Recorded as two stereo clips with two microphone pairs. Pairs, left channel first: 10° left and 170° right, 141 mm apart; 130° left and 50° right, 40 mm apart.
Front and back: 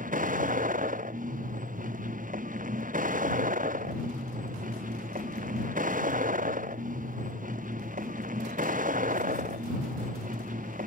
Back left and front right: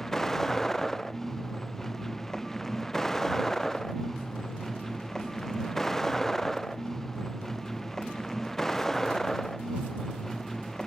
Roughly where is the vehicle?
Behind right.